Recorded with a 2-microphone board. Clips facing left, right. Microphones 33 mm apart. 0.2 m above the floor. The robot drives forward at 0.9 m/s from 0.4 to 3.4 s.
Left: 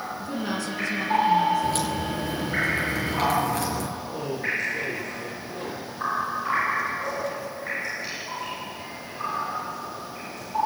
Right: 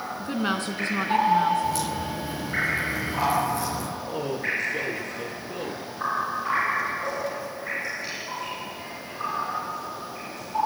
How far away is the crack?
About 4.5 m.